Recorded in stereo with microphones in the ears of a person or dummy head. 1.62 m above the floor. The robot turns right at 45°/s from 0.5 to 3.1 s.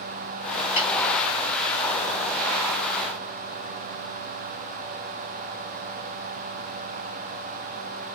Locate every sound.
0.8 s a snare drum: 40° left (ahead or behind), 1.5 m; by 0.9 s 35° left (ahead or behind), 1.5 m